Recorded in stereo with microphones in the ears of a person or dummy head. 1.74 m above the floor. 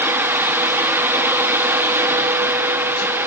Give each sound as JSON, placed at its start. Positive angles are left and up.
{"t": 0.0, "sound": "a fan", "side_deg": -15, "distance_m": 0.9}